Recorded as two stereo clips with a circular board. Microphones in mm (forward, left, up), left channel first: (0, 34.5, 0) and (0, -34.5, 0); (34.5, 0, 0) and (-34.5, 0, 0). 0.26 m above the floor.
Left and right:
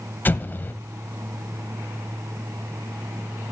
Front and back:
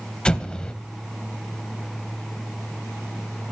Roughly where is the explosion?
Ahead left.